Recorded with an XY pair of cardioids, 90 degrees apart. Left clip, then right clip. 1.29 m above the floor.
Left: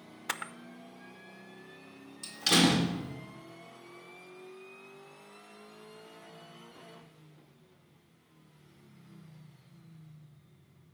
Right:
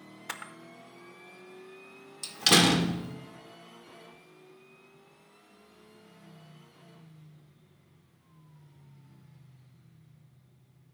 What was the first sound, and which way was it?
A camera shutter, 30° left.